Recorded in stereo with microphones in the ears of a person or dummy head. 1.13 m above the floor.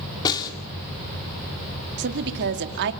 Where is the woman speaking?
60° right (ahead or behind), 2 m.